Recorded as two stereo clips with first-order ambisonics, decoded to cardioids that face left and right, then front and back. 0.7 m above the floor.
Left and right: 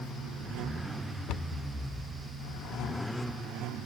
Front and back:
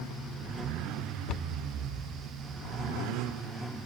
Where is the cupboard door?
50° left.